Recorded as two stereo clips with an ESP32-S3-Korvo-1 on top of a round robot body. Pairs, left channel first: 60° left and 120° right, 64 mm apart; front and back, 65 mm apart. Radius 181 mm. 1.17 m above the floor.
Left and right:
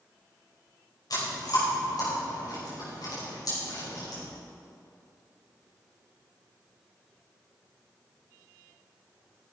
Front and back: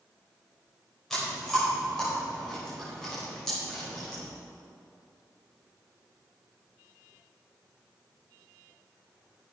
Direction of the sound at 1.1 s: 85° left.